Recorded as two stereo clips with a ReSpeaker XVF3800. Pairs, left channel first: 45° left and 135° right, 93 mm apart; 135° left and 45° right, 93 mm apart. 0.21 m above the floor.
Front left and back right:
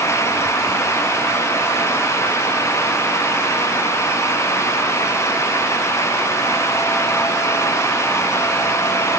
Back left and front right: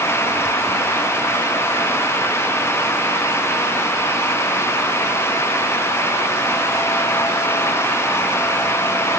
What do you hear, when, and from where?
Only background noise.